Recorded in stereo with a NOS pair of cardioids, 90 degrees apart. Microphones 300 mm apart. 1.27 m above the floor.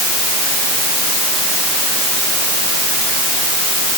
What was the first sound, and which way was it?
Only background noise.